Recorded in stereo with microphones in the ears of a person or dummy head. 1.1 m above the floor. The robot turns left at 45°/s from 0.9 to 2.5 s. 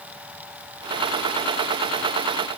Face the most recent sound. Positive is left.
No sound to turn to.